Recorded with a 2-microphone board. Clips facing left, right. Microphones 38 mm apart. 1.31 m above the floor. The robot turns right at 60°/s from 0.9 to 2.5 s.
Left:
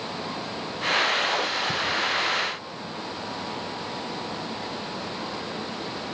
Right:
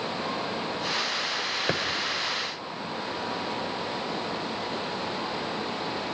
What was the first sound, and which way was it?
A thud, 75° right (ahead or behind).